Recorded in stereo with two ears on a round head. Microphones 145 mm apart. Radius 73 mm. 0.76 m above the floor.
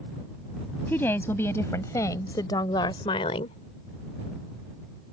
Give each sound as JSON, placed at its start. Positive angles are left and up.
{"t": 0.9, "sound": "a woman speaking", "side_deg": 10}